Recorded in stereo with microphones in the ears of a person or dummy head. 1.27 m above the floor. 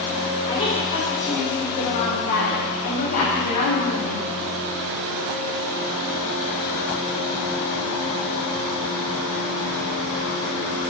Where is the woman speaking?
40° left (ahead or behind), 5 m; by 4.3 s 50° left (ahead or behind), 1.9 m.